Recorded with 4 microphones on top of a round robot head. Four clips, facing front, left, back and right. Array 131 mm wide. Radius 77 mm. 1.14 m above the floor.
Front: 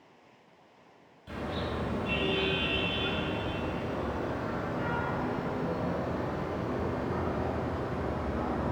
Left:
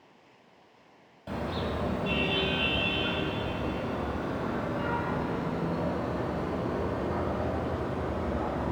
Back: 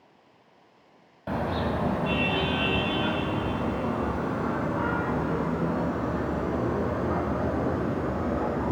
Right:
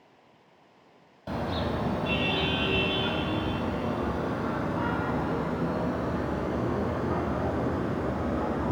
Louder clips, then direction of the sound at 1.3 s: Right 2 dB, back 7 dB; 165° right.